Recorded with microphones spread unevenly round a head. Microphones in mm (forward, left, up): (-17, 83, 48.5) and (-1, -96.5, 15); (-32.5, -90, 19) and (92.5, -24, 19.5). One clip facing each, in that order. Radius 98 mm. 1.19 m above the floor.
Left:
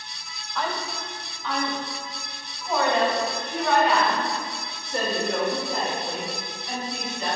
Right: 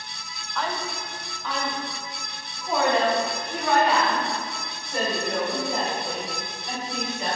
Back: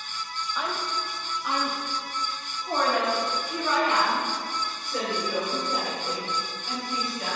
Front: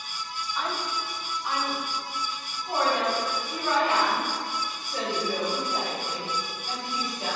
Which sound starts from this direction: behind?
A woman speaking, at 0.6 s.